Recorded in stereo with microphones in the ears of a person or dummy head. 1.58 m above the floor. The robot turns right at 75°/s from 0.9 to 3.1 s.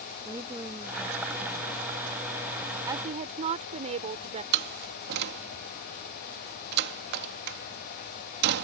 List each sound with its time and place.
0.2 s a woman speaking: 20° right; by 1.8 s 45° left
2.9 s a woman speaking: 10° right (ahead or behind); by 4.4 s 30° right (ahead or behind)
4.5 s a door slam: 65° right (ahead or behind)